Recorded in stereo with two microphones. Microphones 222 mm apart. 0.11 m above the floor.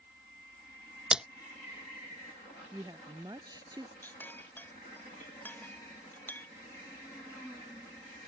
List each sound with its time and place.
1.1 s a splash: 5° right (ahead or behind)
2.7 s a woman speaking: 20° right (ahead or behind)
4.0 s a clink: 10° left (ahead or behind)